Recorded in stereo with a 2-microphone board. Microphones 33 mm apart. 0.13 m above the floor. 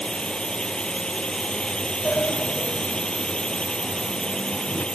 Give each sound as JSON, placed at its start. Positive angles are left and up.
{"t": 0.0, "sound": "a drone", "side_deg": 25}
{"t": 2.0, "sound": "a sliding door", "side_deg": 70}